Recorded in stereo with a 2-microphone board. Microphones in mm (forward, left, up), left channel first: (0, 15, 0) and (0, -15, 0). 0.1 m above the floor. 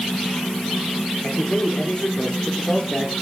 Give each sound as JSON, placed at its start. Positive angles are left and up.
{"t": 1.2, "sound": "a man speaking", "side_deg": 40, "distance_m": 6.0}